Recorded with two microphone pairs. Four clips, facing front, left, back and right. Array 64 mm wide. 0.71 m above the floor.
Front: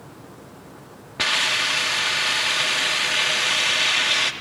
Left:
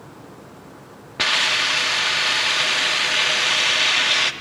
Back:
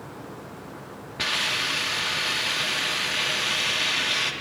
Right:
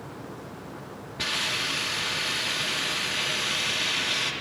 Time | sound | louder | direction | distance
1.2 | a hiss | left 9 dB, front 5 dB | 60° left | 0.8 m